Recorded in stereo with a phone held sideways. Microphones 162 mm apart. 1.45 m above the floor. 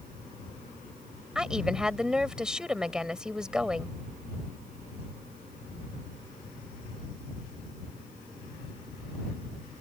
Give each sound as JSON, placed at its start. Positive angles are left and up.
{"t": 1.4, "sound": "a woman speaking", "side_deg": -5}